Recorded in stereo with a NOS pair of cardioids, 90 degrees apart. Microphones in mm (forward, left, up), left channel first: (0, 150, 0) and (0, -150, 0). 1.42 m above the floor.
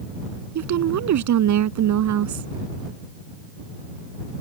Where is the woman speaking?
70° right.